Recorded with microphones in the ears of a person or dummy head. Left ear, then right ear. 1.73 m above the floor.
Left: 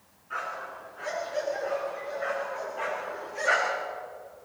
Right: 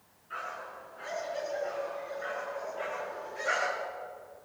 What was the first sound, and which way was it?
A dog barking, 5° left (ahead or behind).